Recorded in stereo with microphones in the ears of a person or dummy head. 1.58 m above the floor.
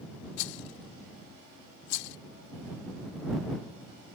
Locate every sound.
0.4 s a rattle: 65° left (ahead or behind)